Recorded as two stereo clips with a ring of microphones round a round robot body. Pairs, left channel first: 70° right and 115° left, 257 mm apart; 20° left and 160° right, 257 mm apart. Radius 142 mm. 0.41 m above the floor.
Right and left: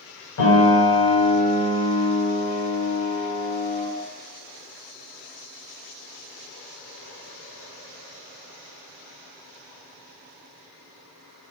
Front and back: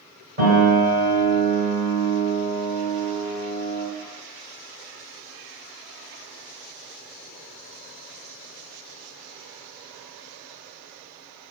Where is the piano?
105° right, 2.0 m.